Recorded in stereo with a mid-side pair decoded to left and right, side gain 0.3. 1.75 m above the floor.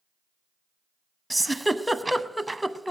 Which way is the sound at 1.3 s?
5° right.